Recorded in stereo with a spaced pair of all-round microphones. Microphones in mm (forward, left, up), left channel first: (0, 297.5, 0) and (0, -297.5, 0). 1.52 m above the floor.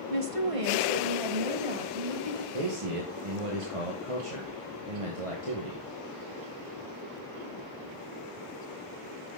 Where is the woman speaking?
60° right (ahead or behind), 1.4 m; by 2.4 s 70° right (ahead or behind), 3 m.